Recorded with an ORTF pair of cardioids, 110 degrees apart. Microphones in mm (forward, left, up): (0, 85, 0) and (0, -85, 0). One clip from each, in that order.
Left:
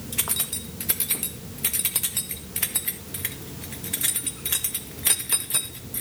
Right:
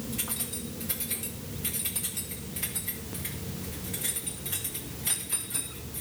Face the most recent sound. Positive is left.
turn(degrees=60)